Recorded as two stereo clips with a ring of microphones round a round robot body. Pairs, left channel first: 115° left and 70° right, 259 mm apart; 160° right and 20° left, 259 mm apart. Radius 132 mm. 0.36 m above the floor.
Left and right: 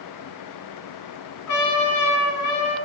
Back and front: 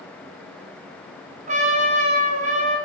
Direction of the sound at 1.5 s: 85° left.